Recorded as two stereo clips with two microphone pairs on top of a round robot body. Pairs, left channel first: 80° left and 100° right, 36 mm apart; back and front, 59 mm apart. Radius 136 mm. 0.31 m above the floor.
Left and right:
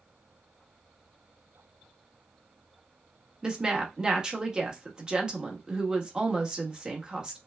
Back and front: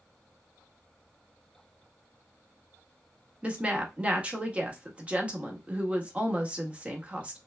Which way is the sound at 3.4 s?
55° right.